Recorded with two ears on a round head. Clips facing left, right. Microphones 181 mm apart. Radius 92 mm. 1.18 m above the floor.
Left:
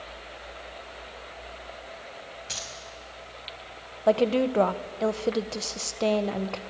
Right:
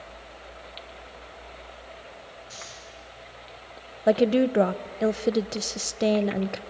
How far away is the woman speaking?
About 0.6 m.